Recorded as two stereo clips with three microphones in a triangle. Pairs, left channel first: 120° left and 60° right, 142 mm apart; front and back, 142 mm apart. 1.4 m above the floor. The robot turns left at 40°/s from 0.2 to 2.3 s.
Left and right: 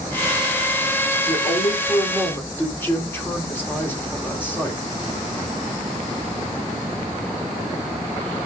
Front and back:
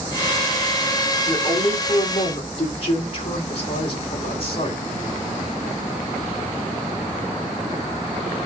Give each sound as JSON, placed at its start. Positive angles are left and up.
{"t": 1.3, "sound": "a woman speaking", "azimuth_deg": 85, "distance_m": 3.5}